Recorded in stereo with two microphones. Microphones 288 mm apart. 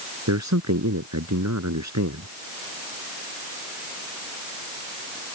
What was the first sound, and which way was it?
A man speaking, 70° right (ahead or behind).